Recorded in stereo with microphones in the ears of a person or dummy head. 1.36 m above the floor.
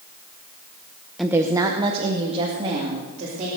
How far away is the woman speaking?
About 0.8 m.